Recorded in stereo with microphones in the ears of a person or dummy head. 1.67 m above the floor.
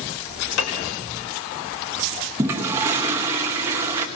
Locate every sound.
0.6 s a piano: 80° left, 2.5 m
2.4 s a toilet flushing: 15° right (ahead or behind), 1.0 m